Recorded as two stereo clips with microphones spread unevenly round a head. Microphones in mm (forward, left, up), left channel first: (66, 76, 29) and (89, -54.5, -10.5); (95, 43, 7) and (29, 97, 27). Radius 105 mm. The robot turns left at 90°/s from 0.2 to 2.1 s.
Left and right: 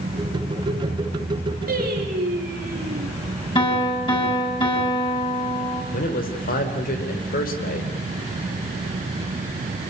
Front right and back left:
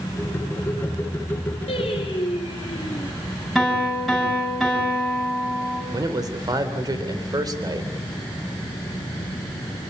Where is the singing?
70° right, 4.5 m; by 3.1 s 110° right, 4.5 m.